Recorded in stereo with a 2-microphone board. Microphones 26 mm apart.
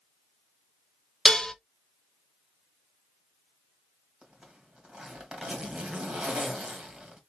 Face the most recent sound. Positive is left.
turn(degrees=-40)  # may be behind; listen again after turning